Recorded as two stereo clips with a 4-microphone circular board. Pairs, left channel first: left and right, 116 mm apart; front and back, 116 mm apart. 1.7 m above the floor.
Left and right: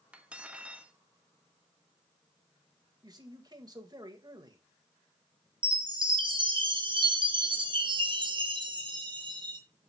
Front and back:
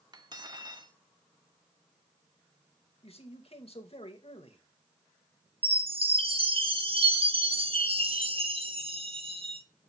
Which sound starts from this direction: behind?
Cutlery clinking, at 0.1 s.